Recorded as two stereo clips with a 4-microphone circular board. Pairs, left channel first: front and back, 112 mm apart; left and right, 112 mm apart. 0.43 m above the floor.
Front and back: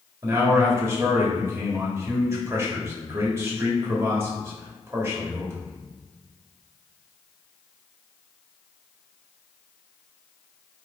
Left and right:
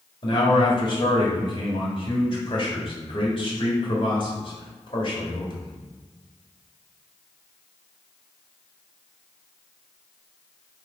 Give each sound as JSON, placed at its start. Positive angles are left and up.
{"t": 0.2, "sound": "a man speaking", "azimuth_deg": 120, "distance_m": 1.6}